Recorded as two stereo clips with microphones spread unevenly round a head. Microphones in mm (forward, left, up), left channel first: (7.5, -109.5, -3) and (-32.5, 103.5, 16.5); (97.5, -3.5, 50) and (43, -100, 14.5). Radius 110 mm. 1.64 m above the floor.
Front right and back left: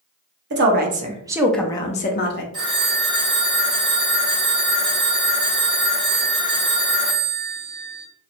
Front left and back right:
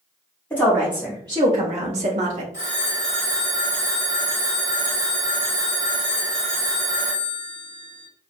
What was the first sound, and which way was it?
A woman speaking, 145° left.